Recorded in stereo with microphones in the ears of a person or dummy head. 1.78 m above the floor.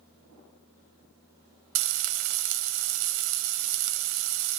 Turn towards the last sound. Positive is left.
turn(degrees=-65)  # may be behind; listen again after turning